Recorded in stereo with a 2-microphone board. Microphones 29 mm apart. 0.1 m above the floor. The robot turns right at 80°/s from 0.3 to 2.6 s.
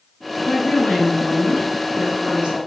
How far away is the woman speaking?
About 1.5 m.